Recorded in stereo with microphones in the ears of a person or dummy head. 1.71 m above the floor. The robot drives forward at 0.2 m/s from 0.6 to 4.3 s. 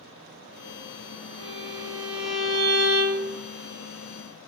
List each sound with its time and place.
1.4 s a violin: 65° right (ahead or behind), 1.3 m; by 3.3 s 50° right (ahead or behind), 1.5 m